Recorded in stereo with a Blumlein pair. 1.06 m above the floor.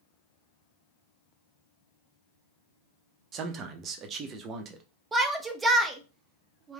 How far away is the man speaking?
About 0.7 m.